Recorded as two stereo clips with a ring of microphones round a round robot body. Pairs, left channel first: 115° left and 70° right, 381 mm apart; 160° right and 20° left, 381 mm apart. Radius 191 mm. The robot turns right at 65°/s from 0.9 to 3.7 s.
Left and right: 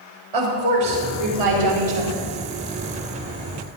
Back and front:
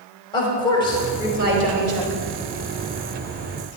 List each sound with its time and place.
0.3 s a woman speaking: 80° right, 4.5 m; by 2.2 s 5° left, 4.5 m